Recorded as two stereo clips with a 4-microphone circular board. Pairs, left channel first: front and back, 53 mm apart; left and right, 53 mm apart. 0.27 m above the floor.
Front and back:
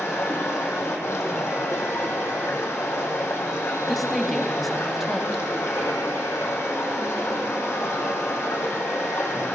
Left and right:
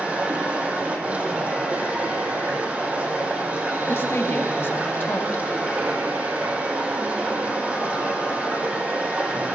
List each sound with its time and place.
0.0 s running water: 30° right, 3 m
3.9 s a woman speaking: 85° left, 1.9 m